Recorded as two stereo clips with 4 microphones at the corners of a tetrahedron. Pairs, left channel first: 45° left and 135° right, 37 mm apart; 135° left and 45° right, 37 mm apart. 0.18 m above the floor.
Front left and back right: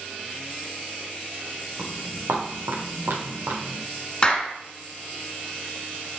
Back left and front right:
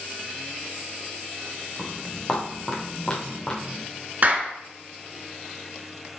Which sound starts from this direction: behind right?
Footsteps, at 1.8 s.